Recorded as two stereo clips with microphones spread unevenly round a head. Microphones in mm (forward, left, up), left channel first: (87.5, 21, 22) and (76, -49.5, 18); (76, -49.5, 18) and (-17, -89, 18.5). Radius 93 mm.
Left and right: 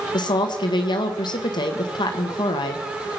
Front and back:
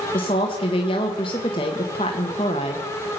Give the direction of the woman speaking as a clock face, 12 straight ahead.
9 o'clock.